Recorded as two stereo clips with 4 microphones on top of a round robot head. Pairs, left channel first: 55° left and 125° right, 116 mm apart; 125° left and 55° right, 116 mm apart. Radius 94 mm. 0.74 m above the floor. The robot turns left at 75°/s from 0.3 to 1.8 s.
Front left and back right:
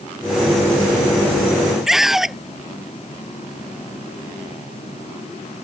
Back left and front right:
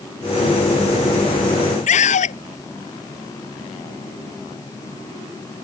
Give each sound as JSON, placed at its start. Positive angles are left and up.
{"t": 1.9, "sound": "a scream", "azimuth_deg": 145}